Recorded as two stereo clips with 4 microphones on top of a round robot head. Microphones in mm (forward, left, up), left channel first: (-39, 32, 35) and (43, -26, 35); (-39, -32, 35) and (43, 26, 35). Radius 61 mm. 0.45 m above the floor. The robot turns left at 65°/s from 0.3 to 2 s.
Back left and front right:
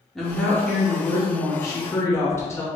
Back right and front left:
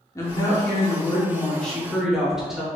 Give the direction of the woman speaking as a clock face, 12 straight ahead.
4 o'clock.